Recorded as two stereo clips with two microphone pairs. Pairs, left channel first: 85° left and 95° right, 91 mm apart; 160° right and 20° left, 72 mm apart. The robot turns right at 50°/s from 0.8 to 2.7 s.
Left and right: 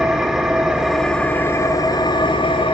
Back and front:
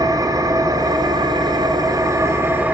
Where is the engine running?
5° right, 1.9 m; by 2.8 s 90° left, 1.9 m.